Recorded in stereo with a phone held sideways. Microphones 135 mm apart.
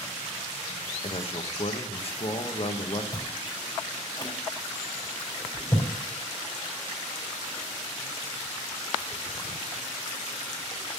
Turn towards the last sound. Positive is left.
turn(degrees=30)  # may be behind; listen again after turning